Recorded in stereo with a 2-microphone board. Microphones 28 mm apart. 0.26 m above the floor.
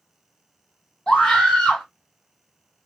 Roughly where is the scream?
Left.